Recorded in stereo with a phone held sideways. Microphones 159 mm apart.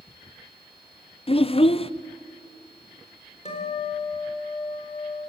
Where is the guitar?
45° left (ahead or behind), 4.5 m.